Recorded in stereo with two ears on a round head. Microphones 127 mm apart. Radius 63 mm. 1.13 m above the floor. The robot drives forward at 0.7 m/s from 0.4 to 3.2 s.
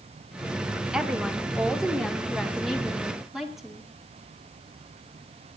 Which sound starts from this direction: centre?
A woman speaking, at 0.9 s.